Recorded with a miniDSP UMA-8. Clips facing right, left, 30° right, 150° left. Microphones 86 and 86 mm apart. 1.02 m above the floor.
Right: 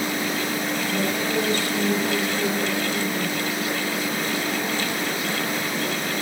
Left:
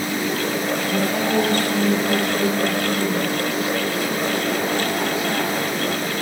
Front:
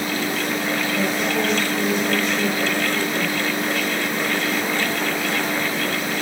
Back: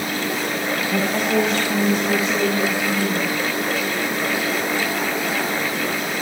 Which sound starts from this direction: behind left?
A woman speaking, at 0.9 s.